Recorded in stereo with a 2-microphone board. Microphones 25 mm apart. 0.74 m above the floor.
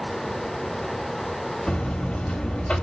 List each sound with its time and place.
1.7 s a buzzer: 60° left (ahead or behind), 1.7 m